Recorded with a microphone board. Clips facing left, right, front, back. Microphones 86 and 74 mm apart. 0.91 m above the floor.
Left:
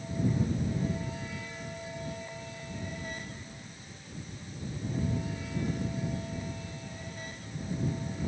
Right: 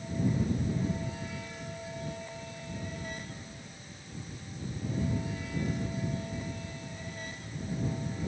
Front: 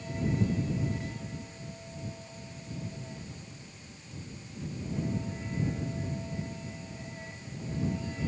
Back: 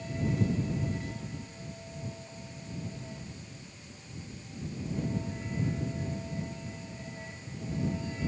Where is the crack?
No crack in this recording.